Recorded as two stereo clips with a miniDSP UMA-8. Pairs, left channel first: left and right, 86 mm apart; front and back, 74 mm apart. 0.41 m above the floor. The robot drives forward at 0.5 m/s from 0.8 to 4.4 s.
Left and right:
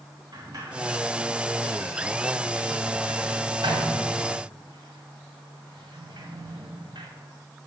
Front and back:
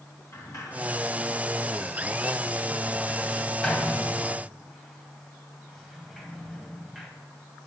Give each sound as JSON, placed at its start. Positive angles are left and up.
{"t": 0.3, "sound": "a sliding door", "azimuth_deg": -45, "distance_m": 2.5}